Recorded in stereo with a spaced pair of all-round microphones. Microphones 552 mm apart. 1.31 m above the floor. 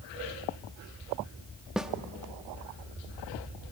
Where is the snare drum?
Centre (ahead or behind), 0.9 m.